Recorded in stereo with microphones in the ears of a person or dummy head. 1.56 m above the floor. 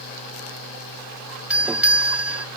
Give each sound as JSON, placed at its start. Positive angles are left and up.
{"t": 1.5, "sound": "a doorbell", "side_deg": -10}